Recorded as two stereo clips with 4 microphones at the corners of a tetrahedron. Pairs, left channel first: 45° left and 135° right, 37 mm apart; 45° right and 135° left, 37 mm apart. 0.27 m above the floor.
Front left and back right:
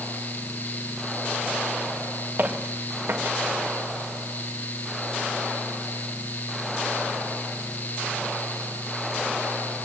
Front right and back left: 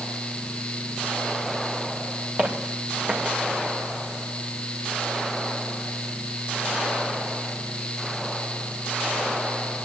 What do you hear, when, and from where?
2.4 s footsteps: 170° right, 4.5 m